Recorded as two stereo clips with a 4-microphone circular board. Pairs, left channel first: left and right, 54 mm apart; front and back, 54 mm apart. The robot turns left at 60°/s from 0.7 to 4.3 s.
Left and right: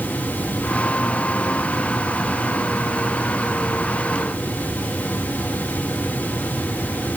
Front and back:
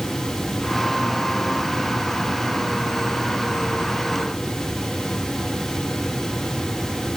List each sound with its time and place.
Only background noise.